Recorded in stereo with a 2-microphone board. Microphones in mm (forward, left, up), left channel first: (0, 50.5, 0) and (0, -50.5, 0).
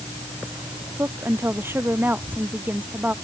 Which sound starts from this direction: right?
A woman speaking, at 1.0 s.